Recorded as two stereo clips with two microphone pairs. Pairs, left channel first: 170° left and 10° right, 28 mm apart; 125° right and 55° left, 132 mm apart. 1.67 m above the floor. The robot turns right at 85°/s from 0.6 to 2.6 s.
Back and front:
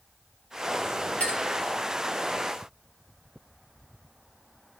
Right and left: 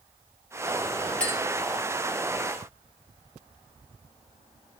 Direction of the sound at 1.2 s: 155° left.